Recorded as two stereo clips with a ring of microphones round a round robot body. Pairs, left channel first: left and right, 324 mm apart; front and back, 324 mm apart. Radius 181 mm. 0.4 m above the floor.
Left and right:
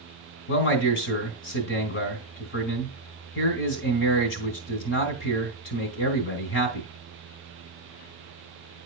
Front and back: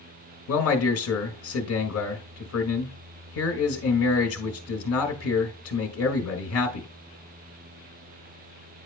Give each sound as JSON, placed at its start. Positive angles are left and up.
{"t": 0.5, "sound": "a man speaking", "azimuth_deg": 40, "distance_m": 1.8}